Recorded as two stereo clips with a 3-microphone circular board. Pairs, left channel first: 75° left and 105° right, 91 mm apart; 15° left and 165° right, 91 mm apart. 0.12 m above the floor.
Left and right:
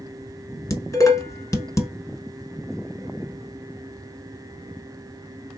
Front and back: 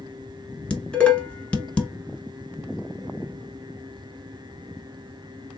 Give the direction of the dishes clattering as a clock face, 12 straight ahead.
9 o'clock.